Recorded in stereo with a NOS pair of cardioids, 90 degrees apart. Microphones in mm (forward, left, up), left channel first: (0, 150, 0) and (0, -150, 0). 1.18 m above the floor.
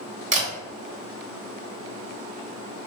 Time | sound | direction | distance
0.3 | a camera shutter | 25° right | 1.7 m